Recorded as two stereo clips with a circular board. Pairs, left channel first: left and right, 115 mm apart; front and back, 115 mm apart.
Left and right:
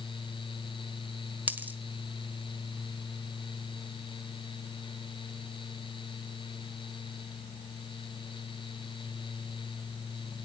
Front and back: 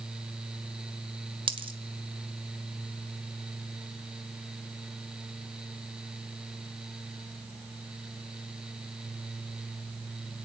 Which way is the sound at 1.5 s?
160° right.